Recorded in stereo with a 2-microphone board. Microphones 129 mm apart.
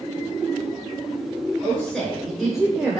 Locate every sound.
1.6 s a woman speaking: 10° left (ahead or behind), 1.2 m; by 3.0 s 10° right (ahead or behind), 1.2 m